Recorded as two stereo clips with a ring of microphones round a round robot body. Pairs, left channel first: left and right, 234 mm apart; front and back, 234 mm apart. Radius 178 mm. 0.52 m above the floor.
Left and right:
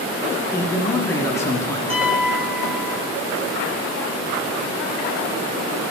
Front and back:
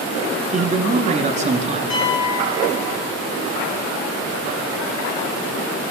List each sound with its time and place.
0.5 s a man speaking: 160° left, 1.2 m
1.9 s a piano: 25° right, 2.5 m